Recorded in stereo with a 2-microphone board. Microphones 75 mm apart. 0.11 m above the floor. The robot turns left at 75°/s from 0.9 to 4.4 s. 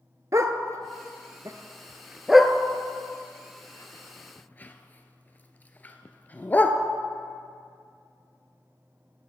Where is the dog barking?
45° right (ahead or behind), 0.8 m; by 6.8 s 25° left (ahead or behind), 0.8 m.